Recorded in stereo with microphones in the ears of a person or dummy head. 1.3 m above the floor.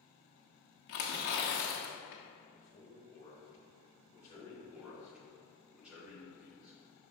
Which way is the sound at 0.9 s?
50° left (ahead or behind).